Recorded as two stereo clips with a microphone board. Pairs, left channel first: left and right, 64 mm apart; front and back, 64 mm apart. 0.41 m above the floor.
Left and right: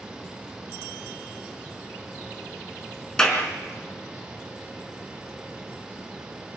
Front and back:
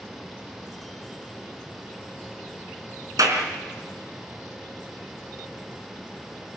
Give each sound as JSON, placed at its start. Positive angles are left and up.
{"t": 3.2, "sound": "a clap", "azimuth_deg": 170, "distance_m": 4.5}